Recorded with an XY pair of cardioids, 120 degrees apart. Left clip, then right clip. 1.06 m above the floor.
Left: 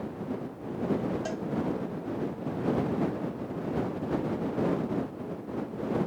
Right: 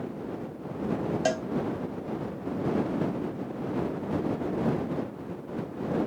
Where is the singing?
No singing in this recording.